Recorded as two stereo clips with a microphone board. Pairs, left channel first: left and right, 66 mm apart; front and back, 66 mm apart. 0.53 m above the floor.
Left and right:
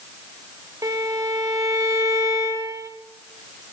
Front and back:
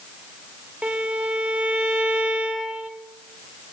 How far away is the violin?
About 0.9 m.